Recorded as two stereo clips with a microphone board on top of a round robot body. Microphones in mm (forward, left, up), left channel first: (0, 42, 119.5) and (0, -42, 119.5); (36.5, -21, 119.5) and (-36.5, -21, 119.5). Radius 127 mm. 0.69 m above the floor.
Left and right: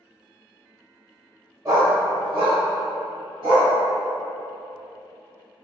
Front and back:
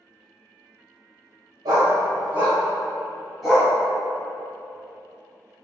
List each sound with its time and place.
1.6 s a dog barking: 145° right, 0.7 m; by 3.7 s 90° right, 1.7 m